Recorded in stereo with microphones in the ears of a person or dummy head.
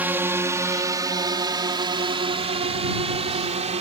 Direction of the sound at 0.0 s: 5° right (ahead or behind).